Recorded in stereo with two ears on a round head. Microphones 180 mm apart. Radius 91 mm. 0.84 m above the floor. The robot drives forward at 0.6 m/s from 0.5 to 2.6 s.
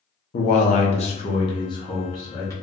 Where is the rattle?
No rattle in this recording.